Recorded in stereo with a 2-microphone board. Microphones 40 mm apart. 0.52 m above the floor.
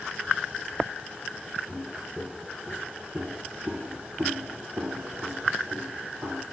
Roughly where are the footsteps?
Centre.